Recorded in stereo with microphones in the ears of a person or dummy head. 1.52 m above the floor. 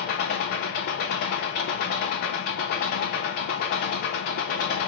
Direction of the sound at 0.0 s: 55° left (ahead or behind).